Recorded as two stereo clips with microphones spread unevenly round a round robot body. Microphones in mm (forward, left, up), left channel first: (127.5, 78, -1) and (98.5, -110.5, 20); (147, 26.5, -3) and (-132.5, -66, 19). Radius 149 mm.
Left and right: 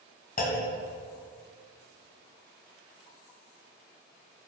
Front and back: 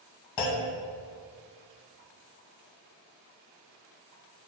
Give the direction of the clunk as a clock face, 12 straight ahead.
11 o'clock.